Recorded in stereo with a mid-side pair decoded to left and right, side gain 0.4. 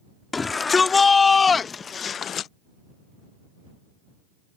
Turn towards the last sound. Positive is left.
turn(degrees=75)